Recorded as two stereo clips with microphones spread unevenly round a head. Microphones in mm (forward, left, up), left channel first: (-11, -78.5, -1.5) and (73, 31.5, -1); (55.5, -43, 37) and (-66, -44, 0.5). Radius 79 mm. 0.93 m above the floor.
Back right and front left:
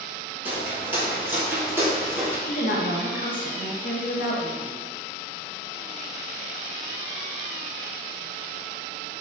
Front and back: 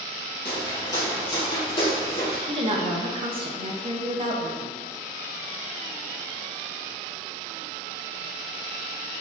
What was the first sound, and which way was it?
Footsteps, 10° right.